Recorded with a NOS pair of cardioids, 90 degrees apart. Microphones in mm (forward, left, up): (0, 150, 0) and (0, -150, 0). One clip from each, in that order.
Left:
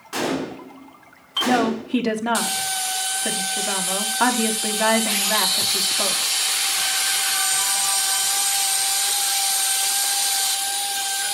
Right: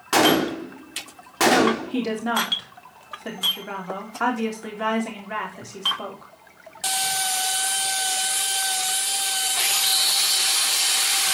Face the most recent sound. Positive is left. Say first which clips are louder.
# right 3 dB
turn(degrees=40)